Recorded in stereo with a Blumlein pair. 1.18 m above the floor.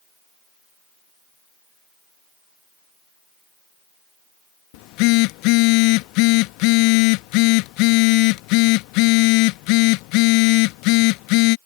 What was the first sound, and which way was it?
A phone buzzing, 45° left.